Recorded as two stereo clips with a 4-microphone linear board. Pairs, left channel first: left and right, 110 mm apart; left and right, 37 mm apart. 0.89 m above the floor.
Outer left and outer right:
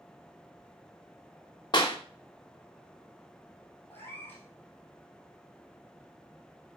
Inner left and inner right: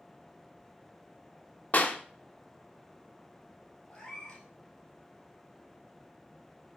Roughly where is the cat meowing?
Left.